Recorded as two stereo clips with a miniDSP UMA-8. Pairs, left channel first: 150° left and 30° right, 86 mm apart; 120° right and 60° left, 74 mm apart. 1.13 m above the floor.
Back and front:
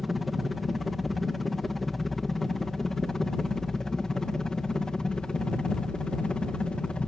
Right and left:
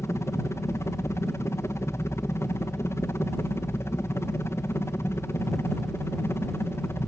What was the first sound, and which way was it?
A helicopter, 120° right.